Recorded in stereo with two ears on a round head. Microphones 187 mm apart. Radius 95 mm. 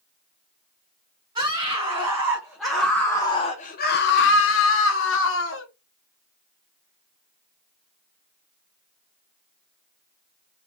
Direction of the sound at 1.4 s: 20° right (ahead or behind).